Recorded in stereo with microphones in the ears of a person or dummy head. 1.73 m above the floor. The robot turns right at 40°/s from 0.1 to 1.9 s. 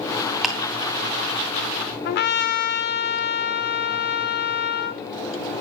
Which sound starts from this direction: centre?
Ticking, at 0.4 s.